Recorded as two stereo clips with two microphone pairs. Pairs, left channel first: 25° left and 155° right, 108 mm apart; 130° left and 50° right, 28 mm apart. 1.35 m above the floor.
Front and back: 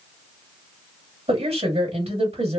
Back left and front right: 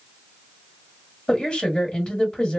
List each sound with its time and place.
1.3 s a woman speaking: 175° right, 1.5 m